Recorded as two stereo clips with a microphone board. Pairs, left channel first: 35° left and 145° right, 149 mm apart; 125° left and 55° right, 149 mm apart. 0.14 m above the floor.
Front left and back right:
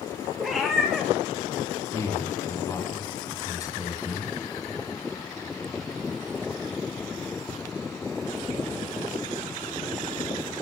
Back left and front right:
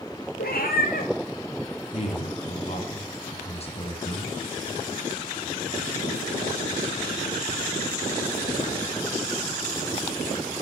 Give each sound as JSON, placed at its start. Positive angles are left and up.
{"t": 0.4, "sound": "a cat meowing", "azimuth_deg": 125, "distance_m": 2.5}
{"t": 1.9, "sound": "a man speaking", "azimuth_deg": 95, "distance_m": 2.5}